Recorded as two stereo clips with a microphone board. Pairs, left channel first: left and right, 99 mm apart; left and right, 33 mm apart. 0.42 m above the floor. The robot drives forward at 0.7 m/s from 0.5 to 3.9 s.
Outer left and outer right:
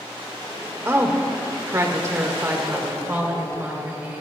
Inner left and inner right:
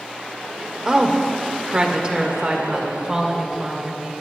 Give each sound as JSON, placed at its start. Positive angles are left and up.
{"t": 0.8, "sound": "a woman speaking", "side_deg": -25, "distance_m": 1.4}